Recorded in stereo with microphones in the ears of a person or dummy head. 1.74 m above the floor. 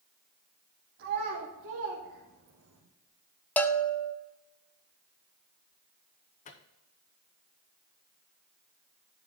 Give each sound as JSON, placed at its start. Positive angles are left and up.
{"t": 1.0, "sound": "a child speaking", "side_deg": -60, "distance_m": 2.0}
{"t": 3.6, "sound": "a bell", "side_deg": 10, "distance_m": 0.7}
{"t": 6.5, "sound": "a microwave", "side_deg": 35, "distance_m": 0.9}